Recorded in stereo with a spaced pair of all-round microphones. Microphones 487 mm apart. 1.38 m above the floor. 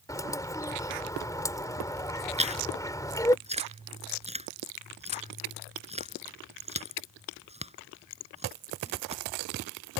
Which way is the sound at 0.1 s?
5° left (ahead or behind).